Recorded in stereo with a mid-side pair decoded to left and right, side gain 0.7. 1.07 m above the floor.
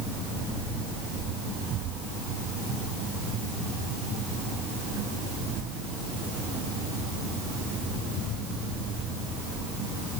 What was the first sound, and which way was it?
Only background noise.